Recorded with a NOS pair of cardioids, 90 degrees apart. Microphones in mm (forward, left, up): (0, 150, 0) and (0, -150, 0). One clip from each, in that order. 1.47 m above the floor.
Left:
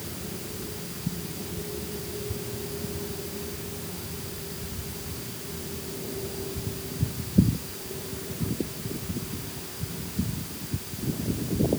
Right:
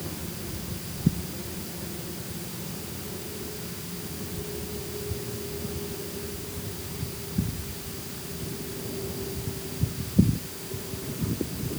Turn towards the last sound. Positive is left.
No sound to turn to.